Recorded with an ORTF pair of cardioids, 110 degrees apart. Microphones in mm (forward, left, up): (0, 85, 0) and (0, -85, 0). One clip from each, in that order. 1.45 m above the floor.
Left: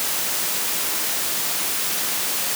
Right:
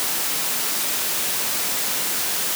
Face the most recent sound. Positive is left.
No sound to turn to.